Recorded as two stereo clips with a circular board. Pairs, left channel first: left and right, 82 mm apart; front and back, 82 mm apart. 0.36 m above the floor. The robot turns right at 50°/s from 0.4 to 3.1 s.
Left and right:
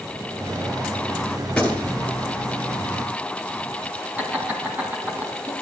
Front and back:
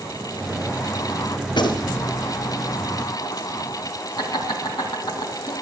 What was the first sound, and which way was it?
A gunshot, 5° left.